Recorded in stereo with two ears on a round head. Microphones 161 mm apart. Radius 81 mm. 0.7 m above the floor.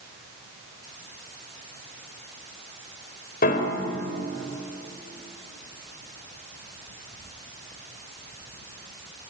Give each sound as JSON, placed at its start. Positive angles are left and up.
{"t": 3.4, "sound": "a piano", "side_deg": 50, "distance_m": 3.5}